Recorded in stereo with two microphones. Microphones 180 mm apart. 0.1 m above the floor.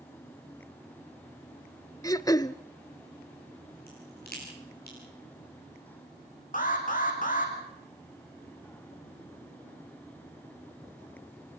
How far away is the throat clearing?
About 0.5 m.